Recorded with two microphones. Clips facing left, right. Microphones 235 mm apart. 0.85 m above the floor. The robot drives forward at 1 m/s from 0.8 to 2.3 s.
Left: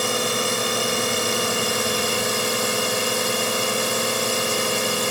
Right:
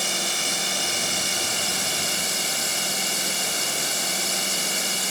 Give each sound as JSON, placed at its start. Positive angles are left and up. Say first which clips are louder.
{"t": 0.0, "sound": "a drone", "louder": "left 9 dB", "side_deg": 65}